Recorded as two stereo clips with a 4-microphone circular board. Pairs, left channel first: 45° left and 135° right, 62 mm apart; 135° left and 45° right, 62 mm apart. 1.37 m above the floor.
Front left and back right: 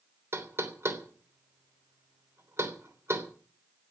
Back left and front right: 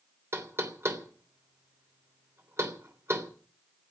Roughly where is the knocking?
Right.